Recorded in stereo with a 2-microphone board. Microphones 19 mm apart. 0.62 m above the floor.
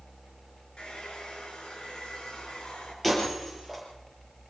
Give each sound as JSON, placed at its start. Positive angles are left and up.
{"t": 0.8, "sound": "a hair dryer", "side_deg": 65, "distance_m": 8.0}
{"t": 3.0, "sound": "breaking glass", "side_deg": 0, "distance_m": 6.0}